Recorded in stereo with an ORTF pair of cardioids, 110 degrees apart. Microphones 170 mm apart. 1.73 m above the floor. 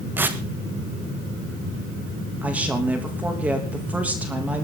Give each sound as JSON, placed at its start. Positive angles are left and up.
{"t": 0.2, "sound": "tearing paper", "azimuth_deg": -10, "distance_m": 1.7}
{"t": 2.4, "sound": "a woman speaking", "azimuth_deg": -10, "distance_m": 3.0}